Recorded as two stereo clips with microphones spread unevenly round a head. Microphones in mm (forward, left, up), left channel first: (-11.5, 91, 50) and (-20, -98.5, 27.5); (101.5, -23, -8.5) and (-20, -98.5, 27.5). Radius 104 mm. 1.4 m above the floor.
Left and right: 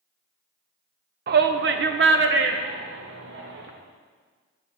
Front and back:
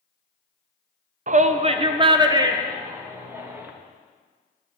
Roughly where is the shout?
Behind right.